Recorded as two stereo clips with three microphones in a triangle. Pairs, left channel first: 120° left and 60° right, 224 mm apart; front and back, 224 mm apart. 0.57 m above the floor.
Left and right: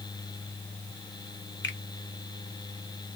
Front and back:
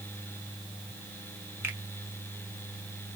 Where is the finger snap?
100° left, 1.2 m.